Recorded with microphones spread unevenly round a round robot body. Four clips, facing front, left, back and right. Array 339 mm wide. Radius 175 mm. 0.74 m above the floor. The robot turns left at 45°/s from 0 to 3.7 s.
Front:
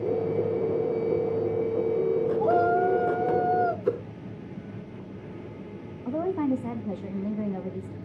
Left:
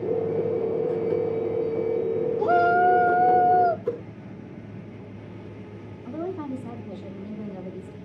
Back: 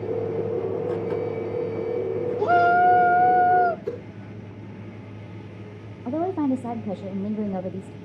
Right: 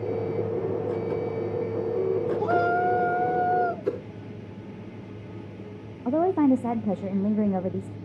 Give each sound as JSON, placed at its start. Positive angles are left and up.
{"t": 2.4, "sound": "a shout", "azimuth_deg": 145, "distance_m": 0.8}
{"t": 3.9, "sound": "a whoosh", "azimuth_deg": -65, "distance_m": 4.0}
{"t": 6.0, "sound": "a woman speaking", "azimuth_deg": -105, "distance_m": 0.7}